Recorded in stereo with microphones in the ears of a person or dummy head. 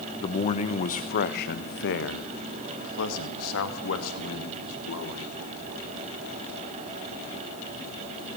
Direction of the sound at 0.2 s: 30° left (ahead or behind).